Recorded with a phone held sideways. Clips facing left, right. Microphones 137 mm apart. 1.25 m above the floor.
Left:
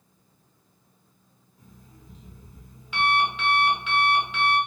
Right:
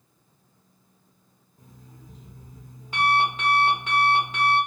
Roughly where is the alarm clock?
Right.